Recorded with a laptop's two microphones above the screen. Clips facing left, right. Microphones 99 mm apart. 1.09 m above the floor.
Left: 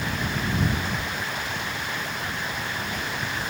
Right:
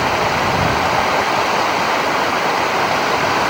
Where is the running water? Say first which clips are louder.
Right 13 dB; 85° right.